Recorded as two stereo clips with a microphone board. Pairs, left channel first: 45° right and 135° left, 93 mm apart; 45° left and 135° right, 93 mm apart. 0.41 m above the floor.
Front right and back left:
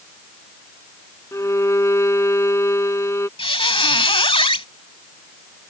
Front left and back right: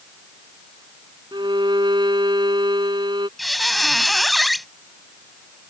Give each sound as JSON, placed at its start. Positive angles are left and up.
{"t": 1.3, "sound": "a violin", "azimuth_deg": -100}
{"t": 3.4, "sound": "a squeak", "azimuth_deg": -45}